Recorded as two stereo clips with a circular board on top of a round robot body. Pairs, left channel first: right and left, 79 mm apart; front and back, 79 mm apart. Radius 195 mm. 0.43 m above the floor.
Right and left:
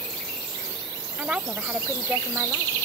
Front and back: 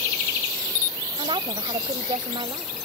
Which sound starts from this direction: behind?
A woman speaking, at 1.2 s.